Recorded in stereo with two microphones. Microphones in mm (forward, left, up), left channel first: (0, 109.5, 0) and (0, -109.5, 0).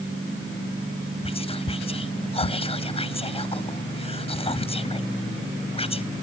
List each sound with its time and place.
1.2 s whispering: 25° left (ahead or behind), 0.6 m